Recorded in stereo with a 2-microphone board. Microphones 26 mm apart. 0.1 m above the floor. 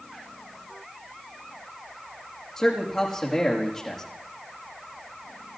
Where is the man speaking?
15° left (ahead or behind), 4.5 m.